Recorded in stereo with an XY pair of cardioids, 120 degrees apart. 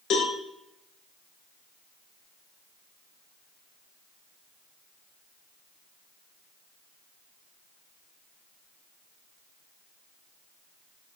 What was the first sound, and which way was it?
A cowbell, 65° left.